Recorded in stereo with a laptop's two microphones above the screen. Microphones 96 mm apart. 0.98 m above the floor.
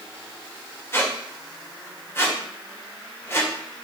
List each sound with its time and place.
0.9 s a squeak: 25° left (ahead or behind), 2 m